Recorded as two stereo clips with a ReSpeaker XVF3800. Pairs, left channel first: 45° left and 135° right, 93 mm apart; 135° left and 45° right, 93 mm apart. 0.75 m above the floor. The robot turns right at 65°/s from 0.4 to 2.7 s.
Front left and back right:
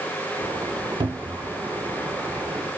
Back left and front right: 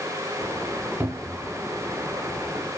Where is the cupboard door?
110° right, 0.5 m; by 1.5 s 75° right, 0.5 m.